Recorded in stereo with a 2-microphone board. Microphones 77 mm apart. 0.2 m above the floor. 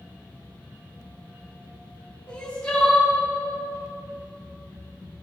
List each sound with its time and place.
2.3 s crying: 15° left (ahead or behind), 2.5 m